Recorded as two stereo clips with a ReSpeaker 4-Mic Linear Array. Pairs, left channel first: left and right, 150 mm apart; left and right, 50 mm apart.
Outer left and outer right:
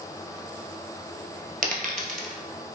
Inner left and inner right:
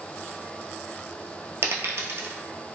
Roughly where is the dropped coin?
Right.